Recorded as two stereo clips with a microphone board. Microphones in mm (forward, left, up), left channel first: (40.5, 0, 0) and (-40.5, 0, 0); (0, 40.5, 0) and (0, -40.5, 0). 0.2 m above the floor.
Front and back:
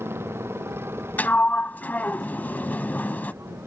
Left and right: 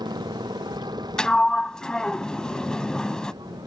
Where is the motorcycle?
120° right.